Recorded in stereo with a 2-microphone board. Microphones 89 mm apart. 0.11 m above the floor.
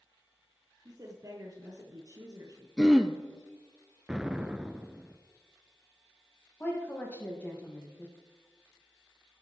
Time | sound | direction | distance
0.8 | a woman speaking | 40° right (ahead or behind) | 2 m
2.8 | throat clearing | centre (ahead or behind) | 0.9 m
4.1 | an explosion | 10° right (ahead or behind) | 0.7 m
6.6 | a woman speaking | 20° left (ahead or behind) | 3.5 m